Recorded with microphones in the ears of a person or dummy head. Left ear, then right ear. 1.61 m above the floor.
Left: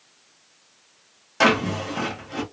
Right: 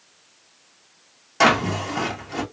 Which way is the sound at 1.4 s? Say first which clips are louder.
Right 2 dB; centre (ahead or behind).